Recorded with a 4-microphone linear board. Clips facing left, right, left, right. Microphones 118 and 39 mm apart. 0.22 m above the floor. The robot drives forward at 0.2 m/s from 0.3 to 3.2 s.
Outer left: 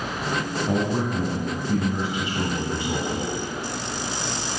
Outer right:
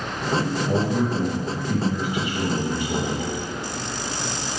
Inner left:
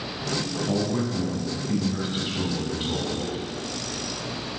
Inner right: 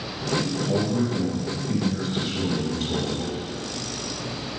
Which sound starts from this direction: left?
A man speaking, at 0.7 s.